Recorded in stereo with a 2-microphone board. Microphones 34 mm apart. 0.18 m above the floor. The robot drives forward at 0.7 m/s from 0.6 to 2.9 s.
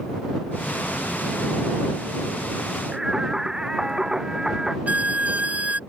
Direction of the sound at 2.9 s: 15° right (ahead or behind).